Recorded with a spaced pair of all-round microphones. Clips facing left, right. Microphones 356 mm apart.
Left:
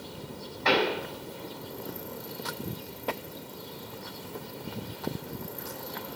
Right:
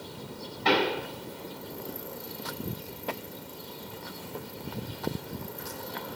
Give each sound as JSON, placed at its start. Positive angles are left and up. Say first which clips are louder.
{"t": 0.7, "sound": "a pop", "louder": "even", "side_deg": -45, "distance_m": 3.5}